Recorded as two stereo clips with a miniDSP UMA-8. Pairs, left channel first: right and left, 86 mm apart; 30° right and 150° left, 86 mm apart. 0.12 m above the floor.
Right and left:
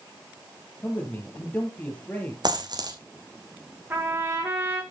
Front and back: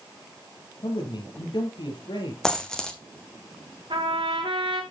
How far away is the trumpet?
About 2.5 m.